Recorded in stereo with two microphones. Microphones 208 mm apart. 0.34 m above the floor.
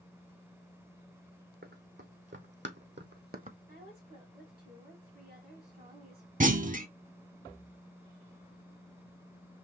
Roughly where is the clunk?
Right.